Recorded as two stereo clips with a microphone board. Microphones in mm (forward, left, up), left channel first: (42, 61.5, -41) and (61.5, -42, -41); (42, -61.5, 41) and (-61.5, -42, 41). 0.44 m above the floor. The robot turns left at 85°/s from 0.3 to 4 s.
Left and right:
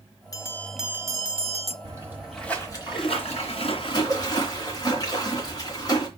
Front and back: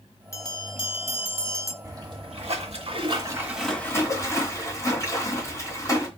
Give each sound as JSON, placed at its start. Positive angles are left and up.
{"t": 0.3, "sound": "a bell", "azimuth_deg": 45, "distance_m": 0.9}
{"t": 1.8, "sound": "a splash", "azimuth_deg": -130, "distance_m": 3.0}